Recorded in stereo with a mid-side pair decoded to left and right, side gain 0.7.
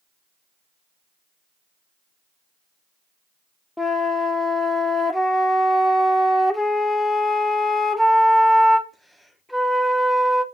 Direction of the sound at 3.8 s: 5° left.